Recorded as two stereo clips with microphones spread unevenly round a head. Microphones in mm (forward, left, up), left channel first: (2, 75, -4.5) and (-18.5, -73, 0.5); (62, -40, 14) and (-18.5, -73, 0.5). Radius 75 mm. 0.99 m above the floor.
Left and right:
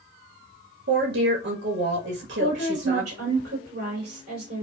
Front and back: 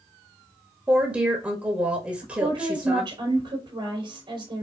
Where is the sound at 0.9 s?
85° right, 1.6 m.